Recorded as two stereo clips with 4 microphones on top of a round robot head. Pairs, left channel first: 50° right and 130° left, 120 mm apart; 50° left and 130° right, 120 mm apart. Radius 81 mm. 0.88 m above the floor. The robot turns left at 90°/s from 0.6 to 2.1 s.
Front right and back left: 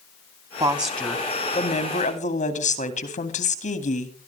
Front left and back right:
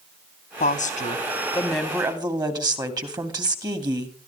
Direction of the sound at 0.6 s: 65° left.